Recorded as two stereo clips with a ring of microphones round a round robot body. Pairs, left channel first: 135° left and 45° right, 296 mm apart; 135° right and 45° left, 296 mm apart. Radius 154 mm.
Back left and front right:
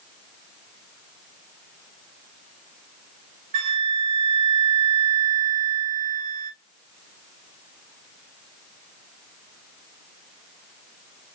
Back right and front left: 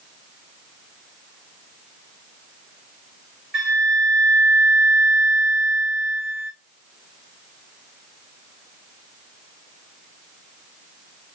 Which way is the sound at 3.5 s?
45° right.